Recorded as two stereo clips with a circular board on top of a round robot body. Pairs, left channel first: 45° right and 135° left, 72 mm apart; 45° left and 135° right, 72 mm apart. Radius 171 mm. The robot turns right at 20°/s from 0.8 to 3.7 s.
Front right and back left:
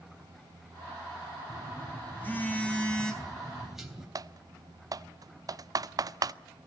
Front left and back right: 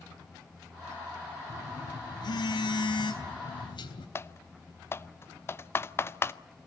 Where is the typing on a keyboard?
100° left, 0.7 m.